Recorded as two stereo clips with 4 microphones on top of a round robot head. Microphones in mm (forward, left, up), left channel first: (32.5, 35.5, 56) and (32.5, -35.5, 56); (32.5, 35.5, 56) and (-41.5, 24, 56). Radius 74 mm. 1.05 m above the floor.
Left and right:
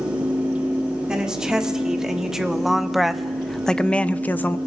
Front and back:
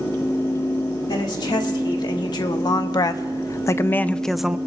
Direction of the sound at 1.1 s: 10° right.